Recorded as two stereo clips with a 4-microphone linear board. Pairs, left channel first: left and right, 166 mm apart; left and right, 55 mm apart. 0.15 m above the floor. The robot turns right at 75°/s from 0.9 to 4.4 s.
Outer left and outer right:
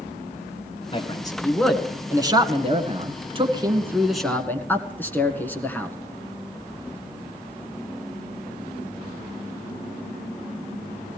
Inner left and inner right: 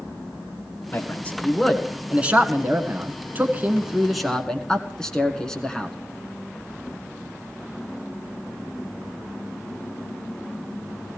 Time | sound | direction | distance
0.9 | a man speaking | 35° left (ahead or behind) | 1.7 m